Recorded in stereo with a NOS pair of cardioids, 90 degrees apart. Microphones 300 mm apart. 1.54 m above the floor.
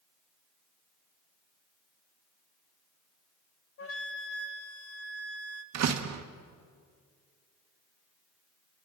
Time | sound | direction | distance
3.8 | a flute | 45° left | 1.6 m
5.7 | a door slam | 60° right | 1.5 m